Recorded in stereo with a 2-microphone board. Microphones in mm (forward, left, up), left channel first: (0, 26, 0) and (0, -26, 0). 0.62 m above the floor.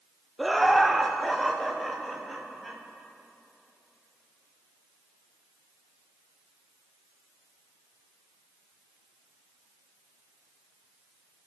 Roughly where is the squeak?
I don't hear a squeak.